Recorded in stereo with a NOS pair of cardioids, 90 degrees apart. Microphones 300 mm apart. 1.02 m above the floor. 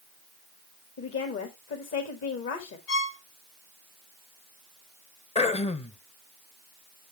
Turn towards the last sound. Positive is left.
turn(degrees=20)